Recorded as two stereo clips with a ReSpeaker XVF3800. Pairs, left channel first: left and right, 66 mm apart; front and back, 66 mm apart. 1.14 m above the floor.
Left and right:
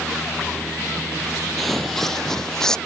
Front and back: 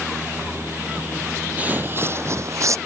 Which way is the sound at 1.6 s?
175° left.